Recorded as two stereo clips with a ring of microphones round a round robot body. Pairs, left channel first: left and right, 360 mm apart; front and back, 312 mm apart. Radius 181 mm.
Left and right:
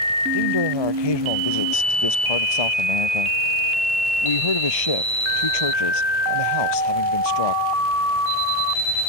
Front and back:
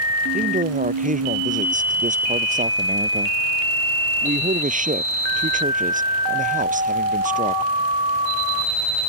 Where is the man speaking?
115° left.